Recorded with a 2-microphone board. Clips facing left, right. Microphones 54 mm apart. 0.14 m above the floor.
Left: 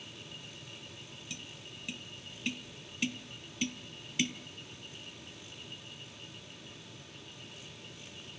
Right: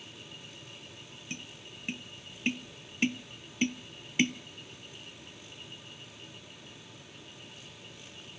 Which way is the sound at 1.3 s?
35° right (ahead or behind).